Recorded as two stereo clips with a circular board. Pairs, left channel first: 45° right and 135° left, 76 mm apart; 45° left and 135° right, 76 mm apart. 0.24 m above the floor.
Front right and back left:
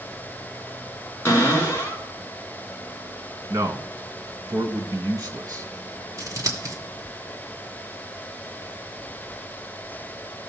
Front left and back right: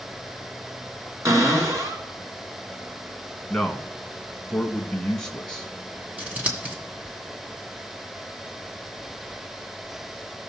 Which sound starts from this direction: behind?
Scissors, at 6.2 s.